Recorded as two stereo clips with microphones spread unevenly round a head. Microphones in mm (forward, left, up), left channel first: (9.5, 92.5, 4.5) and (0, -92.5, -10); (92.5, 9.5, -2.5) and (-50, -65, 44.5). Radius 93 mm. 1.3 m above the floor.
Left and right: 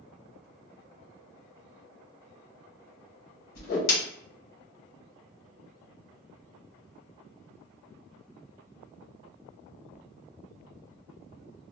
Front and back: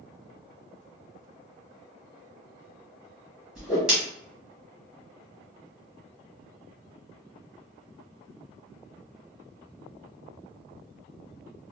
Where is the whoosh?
125° left, 1.2 m.